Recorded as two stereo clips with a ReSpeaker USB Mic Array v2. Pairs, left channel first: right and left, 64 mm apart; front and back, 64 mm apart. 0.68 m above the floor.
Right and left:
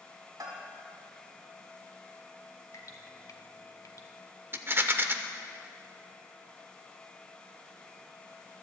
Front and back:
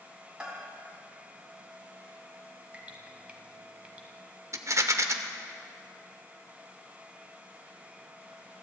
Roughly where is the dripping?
Behind right.